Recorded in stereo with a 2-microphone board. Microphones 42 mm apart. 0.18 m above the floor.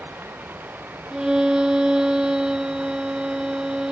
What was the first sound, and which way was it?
Running water, 50° right (ahead or behind).